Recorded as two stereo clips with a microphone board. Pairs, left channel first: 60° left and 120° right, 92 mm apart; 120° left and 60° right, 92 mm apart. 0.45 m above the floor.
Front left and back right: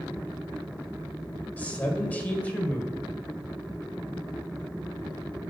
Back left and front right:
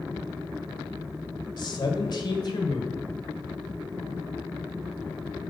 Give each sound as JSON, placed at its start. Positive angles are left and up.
{"t": 1.6, "sound": "a man speaking", "azimuth_deg": 130, "distance_m": 1.8}